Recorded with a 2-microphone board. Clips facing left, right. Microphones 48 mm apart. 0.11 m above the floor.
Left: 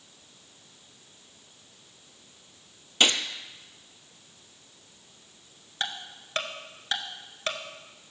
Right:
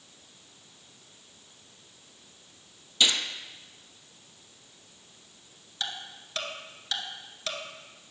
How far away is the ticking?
About 1.3 m.